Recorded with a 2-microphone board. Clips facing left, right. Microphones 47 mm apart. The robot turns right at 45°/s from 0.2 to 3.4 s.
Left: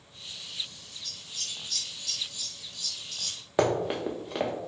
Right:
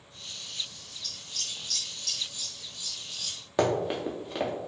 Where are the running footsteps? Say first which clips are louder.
Left 1 dB; 10° left (ahead or behind), 0.7 m.